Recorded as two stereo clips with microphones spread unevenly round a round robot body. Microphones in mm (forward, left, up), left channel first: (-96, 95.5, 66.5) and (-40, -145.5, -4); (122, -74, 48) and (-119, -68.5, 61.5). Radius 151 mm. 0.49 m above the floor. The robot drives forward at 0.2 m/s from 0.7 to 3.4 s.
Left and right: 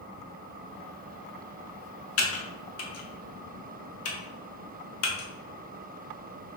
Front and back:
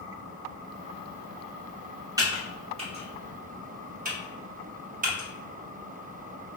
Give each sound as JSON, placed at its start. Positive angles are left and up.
{"t": 2.2, "sound": "typing on a keyboard", "azimuth_deg": 105, "distance_m": 0.7}